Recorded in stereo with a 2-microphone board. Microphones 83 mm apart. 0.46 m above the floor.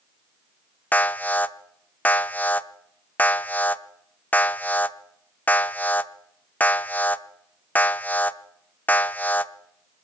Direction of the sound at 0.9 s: 20° left (ahead or behind).